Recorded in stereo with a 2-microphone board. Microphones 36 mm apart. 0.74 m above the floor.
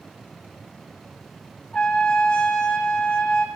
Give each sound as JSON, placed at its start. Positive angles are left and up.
{"t": 1.7, "sound": "a trumpet", "side_deg": 30, "distance_m": 0.6}